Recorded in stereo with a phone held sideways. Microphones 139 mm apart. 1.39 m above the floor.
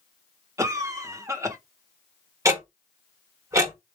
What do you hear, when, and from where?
0.6 s a cough: 20° right (ahead or behind), 1.0 m
2.5 s ticking: 25° right (ahead or behind), 1.0 m